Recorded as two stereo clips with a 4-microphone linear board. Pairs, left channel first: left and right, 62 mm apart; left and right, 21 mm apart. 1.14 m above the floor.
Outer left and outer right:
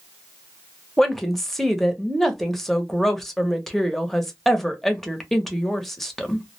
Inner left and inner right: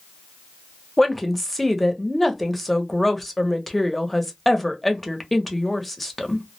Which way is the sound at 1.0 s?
5° left (ahead or behind).